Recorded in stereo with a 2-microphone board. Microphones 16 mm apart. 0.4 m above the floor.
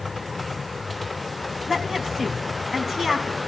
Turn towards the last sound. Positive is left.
turn(degrees=-30)  # may be behind; listen again after turning